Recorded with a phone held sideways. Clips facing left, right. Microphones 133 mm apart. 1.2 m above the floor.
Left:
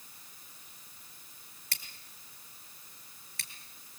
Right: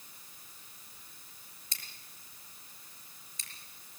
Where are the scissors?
75° left (ahead or behind), 5.5 m.